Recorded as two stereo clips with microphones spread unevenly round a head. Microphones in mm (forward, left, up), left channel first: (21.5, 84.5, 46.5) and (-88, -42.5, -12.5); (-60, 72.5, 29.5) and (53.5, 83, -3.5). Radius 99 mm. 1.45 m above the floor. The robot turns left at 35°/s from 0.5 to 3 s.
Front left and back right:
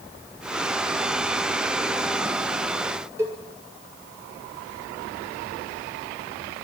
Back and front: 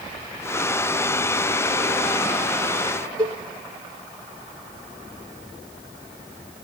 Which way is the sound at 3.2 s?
55° right.